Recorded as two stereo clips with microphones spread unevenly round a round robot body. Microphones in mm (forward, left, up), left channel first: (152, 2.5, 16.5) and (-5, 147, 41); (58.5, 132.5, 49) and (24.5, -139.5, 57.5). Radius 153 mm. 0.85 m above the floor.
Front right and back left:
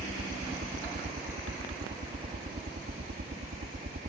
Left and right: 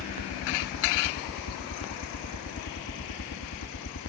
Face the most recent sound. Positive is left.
turn(degrees=100)